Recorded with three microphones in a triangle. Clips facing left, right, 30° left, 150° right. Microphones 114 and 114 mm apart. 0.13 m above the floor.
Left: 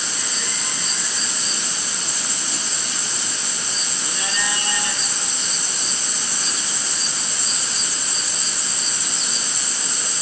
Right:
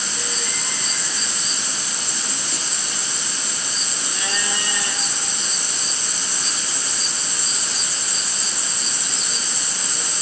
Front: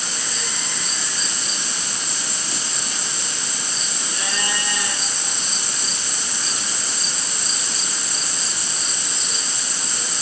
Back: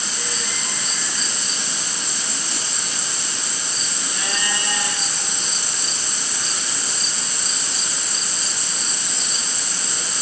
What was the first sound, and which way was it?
Only background noise.